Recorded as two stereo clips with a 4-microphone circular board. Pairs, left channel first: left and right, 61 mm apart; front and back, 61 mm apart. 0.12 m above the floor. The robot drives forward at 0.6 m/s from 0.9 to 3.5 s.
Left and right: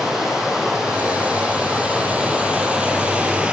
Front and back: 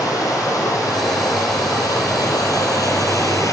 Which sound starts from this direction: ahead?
Running water, at 0.0 s.